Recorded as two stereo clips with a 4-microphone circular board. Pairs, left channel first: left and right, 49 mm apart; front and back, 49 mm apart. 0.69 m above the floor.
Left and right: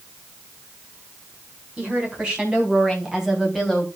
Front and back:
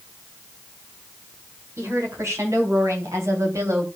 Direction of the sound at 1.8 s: 155° right.